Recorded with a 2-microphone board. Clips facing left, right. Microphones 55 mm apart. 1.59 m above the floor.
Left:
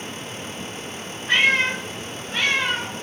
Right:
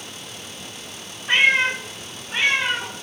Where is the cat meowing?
25° right (ahead or behind), 0.8 m; by 2.9 s 20° right (ahead or behind), 1.0 m.